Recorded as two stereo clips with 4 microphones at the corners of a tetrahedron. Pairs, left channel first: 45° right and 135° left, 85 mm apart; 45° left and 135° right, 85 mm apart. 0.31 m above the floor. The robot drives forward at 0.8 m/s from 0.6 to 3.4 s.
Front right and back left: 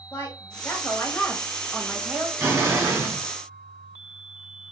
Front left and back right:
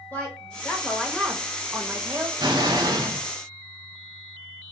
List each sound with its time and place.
0.1 s a woman speaking: 10° right, 1.1 m; by 2.3 s 170° right, 1.1 m
2.4 s an explosion: 165° right, 1.5 m; by 3.2 s 170° right, 2 m